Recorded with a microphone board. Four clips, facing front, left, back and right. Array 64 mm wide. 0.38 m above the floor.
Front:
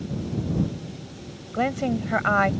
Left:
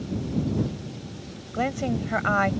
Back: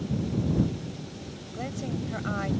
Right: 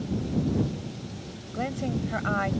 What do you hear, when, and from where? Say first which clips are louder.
1.5 s a woman speaking: left 4 dB, front 10 dB; 25° left